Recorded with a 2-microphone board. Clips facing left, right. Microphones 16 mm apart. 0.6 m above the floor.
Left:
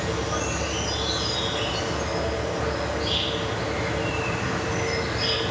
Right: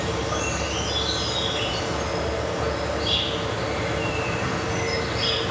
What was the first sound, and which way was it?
An insect, 55° right (ahead or behind).